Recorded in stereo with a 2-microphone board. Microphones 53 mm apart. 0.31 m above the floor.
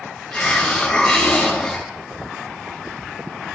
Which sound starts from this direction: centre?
A hiss, at 0.3 s.